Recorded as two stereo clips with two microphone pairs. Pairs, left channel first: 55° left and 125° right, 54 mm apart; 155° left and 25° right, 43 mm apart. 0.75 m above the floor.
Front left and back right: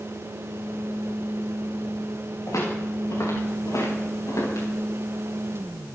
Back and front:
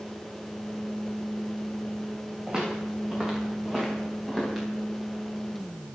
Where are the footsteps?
50° left, 9 m; by 4.7 s 60° left, 12 m.